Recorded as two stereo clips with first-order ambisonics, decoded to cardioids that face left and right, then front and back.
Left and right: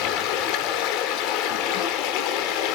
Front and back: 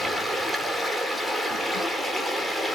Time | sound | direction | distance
0.0 | running water | 85° left | 1.2 m